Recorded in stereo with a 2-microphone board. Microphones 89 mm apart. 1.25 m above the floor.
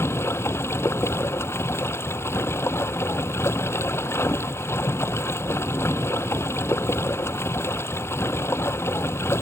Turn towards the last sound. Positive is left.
turn(degrees=30)  # may be behind; listen again after turning